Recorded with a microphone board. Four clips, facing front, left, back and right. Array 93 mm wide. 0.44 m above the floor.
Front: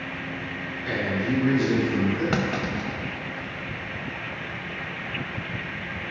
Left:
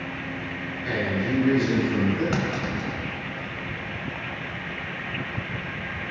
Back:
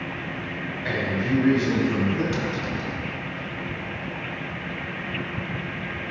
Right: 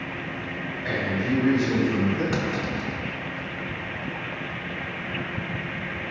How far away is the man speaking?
About 3 m.